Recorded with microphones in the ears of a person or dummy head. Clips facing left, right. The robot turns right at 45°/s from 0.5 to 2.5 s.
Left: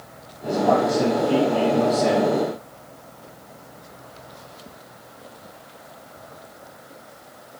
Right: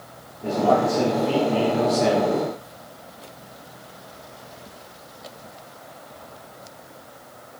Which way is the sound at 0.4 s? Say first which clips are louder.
Even; 145° right.